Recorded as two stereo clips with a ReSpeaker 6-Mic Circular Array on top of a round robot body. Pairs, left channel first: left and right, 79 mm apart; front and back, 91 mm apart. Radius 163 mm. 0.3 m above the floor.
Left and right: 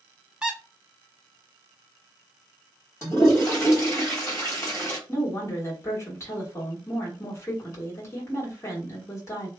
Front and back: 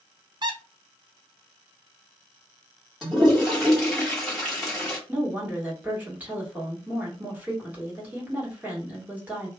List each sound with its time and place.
0.4 s a squeak: 165° right, 0.8 m
3.0 s a toilet flushing: 80° left, 1.7 m
5.1 s a woman speaking: 115° left, 1.6 m